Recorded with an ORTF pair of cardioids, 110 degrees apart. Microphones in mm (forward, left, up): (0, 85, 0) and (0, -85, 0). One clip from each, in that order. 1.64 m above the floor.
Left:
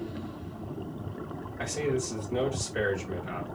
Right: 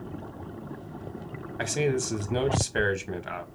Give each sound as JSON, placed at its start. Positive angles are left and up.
{"t": 1.6, "sound": "a man speaking", "azimuth_deg": -50, "distance_m": 1.5}